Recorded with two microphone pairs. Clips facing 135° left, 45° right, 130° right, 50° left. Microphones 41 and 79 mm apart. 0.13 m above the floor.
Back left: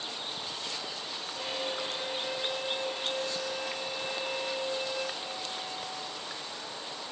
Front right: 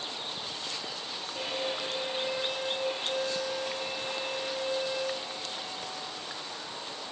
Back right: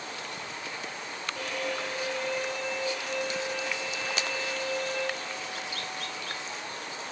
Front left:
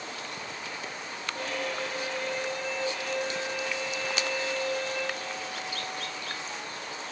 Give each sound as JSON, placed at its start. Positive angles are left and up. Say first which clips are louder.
{"t": 1.4, "sound": "a violin", "louder": "front right 2 dB, even", "azimuth_deg": 5, "distance_m": 2.0}